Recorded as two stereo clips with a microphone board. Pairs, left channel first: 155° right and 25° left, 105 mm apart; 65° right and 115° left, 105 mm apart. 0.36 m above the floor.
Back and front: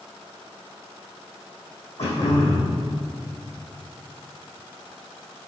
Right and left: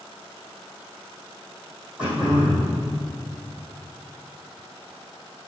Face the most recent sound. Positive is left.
turn(degrees=-165)